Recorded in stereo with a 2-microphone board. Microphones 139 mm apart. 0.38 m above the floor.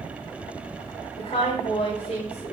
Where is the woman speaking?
45° left (ahead or behind), 1.7 m.